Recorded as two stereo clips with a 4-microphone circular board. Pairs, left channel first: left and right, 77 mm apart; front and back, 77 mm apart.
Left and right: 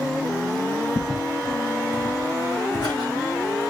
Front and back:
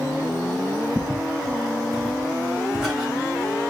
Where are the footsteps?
75° left, 3 m; by 3.7 s 105° left, 3.5 m.